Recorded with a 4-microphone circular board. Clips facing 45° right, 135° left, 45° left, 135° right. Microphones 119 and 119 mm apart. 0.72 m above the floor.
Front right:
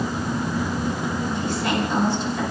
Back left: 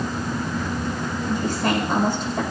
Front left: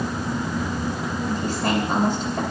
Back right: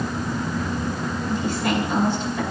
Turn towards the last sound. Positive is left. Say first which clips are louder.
# back left 5 dB, even
turn(degrees=90)